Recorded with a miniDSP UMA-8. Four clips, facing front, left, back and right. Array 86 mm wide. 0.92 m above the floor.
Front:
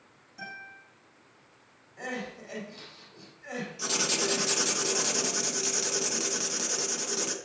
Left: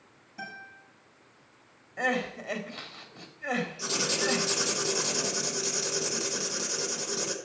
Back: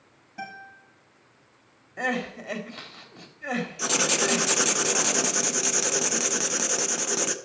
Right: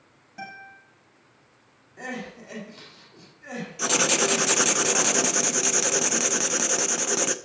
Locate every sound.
0.4 s a guitar: 145° right, 6.5 m
2.0 s crying: 155° left, 1.8 m
3.8 s writing: 120° right, 0.6 m